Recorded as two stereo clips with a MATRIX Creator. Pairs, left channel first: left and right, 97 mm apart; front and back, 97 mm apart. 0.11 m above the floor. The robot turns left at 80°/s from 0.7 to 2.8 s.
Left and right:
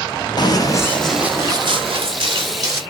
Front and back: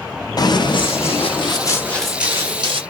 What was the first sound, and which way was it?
Running footsteps, 50° left.